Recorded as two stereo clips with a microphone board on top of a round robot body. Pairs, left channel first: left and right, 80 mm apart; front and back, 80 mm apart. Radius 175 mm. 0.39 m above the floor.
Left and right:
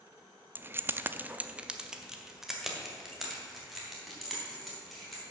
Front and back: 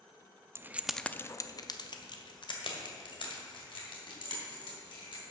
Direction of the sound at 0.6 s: 140° right.